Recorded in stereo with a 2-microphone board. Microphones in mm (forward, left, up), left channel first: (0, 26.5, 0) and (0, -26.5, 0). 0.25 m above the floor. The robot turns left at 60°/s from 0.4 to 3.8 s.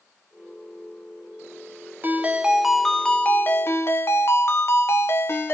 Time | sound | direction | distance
2.0 | a ringtone | 135° right | 0.9 m